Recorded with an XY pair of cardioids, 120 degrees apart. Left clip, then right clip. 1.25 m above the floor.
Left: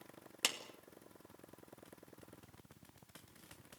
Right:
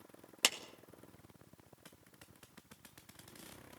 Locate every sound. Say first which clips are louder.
0.4 s a clap: right 4 dB; 25° right, 1.9 m